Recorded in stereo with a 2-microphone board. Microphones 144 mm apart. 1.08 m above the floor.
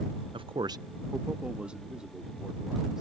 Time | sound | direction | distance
0.3 | a man speaking | 35° right (ahead or behind) | ?